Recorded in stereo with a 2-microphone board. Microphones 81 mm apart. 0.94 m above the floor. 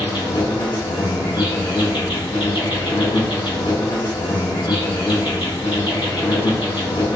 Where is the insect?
80° left, 1.1 m.